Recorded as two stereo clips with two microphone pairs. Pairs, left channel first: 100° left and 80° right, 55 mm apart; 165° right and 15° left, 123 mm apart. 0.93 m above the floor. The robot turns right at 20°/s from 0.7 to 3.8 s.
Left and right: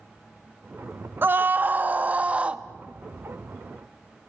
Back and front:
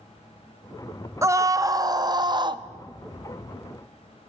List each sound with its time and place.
1.2 s a scream: 45° right, 0.8 m; by 2.6 s 15° right, 0.8 m